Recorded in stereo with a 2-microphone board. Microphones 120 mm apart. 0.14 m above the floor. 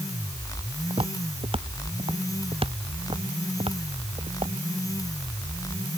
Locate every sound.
0.9 s footsteps: 50° right (ahead or behind); by 4.6 s 55° right (ahead or behind)